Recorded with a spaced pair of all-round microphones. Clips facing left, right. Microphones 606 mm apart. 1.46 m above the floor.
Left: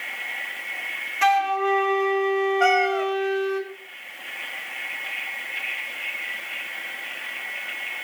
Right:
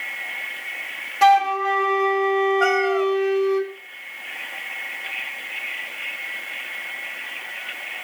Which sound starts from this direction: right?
A flute, at 1.2 s.